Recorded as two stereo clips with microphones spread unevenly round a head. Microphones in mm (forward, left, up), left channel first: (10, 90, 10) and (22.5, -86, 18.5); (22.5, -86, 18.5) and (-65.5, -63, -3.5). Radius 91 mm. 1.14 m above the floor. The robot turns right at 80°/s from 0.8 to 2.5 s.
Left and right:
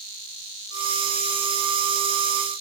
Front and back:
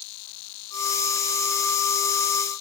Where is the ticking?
I don't hear ticking.